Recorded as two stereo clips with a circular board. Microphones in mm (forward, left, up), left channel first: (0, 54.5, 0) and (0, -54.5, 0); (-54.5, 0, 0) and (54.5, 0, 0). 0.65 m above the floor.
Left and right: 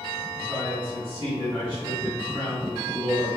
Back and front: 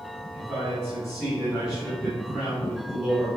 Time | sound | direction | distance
0.3 | a man speaking | 85° right | 2.0 m